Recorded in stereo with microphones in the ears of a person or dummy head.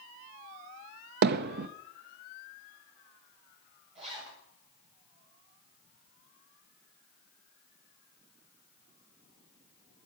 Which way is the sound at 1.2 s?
55° right (ahead or behind).